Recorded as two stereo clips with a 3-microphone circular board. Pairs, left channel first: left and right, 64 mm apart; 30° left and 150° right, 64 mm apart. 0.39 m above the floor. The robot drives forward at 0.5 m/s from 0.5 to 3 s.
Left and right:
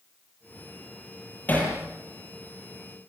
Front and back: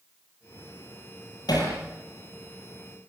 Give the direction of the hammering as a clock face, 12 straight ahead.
11 o'clock.